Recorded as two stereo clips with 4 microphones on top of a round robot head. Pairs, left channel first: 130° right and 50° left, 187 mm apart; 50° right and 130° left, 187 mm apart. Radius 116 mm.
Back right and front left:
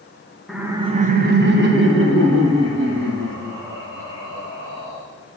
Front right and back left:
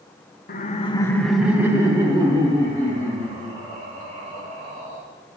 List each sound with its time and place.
0.5 s laughter: 40° right, 0.8 m; by 5.0 s 75° left, 4.5 m